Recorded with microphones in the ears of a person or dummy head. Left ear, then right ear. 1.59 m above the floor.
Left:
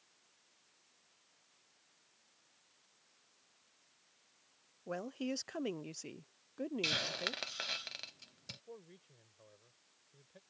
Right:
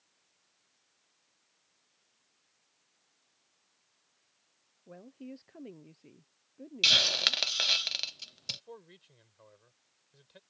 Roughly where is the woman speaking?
Left.